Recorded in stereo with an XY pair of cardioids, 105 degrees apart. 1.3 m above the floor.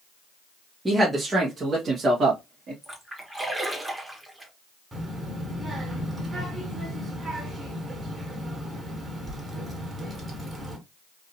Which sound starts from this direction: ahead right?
A child speaking, at 4.9 s.